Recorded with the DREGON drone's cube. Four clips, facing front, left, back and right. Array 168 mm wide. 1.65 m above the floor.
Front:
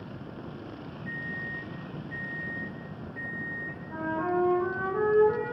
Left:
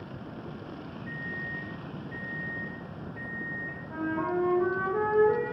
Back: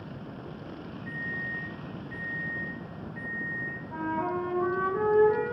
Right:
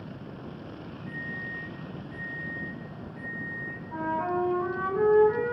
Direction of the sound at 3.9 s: 80° left.